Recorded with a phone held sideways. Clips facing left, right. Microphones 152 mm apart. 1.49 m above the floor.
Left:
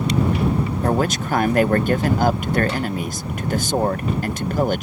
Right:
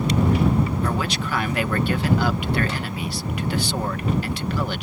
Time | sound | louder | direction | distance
0.8 | a man speaking | left 5 dB | 45° left (ahead or behind) | ?